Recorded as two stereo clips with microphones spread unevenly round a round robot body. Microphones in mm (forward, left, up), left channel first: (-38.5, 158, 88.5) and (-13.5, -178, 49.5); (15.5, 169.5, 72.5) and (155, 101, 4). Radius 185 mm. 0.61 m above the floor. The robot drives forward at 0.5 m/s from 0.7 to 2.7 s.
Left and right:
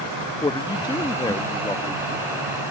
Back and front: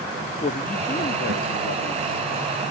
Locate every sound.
0.4 s a man speaking: 170° left; by 2.5 s straight behind